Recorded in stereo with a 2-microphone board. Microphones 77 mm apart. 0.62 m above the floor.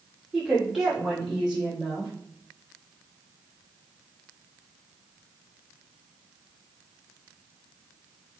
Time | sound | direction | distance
0.3 | a woman speaking | 5° right (ahead or behind) | 1.9 m